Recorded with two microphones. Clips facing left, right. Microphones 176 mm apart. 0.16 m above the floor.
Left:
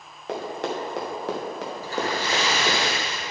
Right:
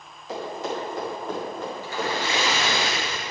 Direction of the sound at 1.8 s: 40° left (ahead or behind).